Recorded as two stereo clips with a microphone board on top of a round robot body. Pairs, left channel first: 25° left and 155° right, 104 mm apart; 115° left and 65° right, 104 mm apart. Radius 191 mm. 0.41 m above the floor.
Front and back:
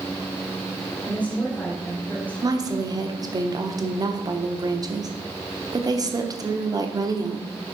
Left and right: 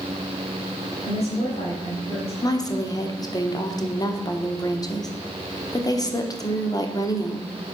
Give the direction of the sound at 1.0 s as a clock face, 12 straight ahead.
9 o'clock.